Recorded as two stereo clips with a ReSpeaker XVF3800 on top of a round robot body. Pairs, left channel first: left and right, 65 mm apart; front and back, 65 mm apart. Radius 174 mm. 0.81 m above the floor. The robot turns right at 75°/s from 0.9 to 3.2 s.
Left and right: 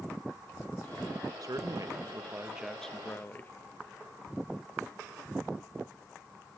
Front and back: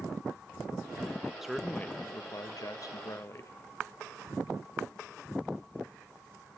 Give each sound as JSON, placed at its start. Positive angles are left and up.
{"t": 1.4, "sound": "a man speaking", "azimuth_deg": -95, "distance_m": 1.0}